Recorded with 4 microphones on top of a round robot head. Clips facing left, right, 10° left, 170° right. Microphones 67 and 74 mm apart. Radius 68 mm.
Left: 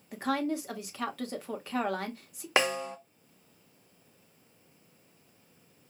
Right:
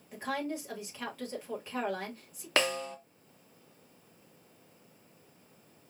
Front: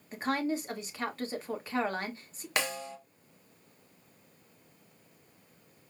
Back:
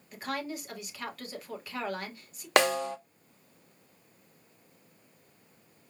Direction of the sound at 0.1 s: 70° left.